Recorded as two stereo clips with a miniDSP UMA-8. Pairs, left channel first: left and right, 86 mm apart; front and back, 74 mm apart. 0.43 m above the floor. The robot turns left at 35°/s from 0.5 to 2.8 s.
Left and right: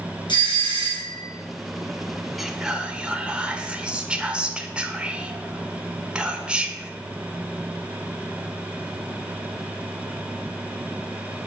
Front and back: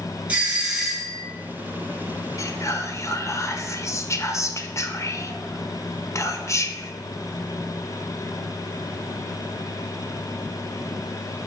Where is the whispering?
5° right, 1.0 m; by 6.9 s 20° right, 1.0 m.